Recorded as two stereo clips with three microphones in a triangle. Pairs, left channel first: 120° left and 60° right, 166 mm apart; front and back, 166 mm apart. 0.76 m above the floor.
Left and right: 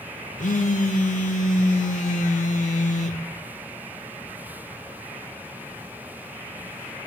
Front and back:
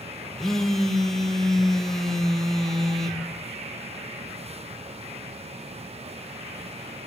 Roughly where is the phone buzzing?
Left.